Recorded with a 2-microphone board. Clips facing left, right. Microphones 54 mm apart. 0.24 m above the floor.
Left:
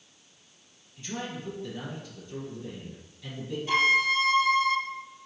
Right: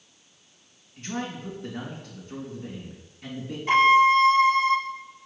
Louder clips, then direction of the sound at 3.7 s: Right 7 dB; 45° right (ahead or behind).